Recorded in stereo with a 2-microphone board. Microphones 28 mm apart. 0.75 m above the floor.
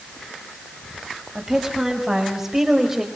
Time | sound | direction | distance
1.4 | a woman speaking | 15° right (ahead or behind) | 5 m